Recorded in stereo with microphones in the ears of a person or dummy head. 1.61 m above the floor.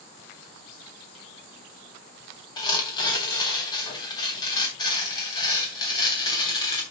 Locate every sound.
2.6 s tearing paper: 25° left (ahead or behind), 3 m